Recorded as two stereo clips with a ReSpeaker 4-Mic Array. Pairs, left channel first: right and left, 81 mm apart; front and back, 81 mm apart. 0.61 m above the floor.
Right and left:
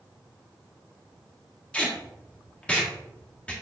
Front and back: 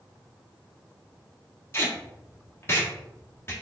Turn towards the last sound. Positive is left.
turn(degrees=-25)